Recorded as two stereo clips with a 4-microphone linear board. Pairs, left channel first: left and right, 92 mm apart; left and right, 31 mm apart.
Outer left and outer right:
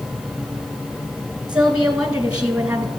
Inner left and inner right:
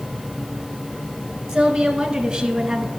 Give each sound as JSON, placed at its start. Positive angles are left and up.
{"t": 1.5, "sound": "a woman speaking", "side_deg": -10, "distance_m": 1.2}